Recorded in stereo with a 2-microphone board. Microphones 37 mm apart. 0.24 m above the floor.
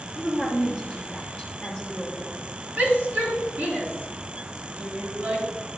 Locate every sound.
0.2 s a woman speaking: 20° right (ahead or behind), 3.5 m
2.8 s a shout: 60° right (ahead or behind), 3.5 m